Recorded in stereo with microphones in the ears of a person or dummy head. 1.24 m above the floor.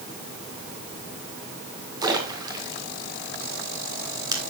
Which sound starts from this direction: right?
A splash, at 2.0 s.